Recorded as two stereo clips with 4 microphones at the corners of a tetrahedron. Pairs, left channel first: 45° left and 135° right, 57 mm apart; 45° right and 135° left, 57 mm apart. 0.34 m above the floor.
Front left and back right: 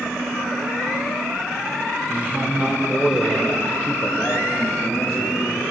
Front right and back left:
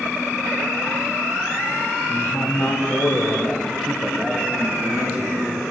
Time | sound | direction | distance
2.1 | a man speaking | 80° right | 2.5 m